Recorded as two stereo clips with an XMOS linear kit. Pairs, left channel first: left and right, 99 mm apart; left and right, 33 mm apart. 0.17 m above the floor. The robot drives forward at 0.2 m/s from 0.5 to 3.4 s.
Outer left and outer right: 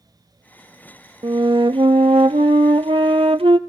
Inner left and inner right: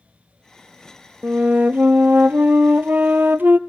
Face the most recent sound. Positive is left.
turn(degrees=-75)  # may be behind; listen again after turning